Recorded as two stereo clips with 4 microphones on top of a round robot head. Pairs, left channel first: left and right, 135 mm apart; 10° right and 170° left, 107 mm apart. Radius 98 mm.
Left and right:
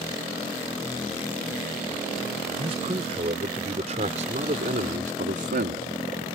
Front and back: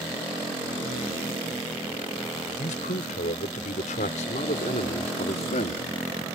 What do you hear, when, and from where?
2.6 s a man speaking: 35° right; by 5.9 s 60° right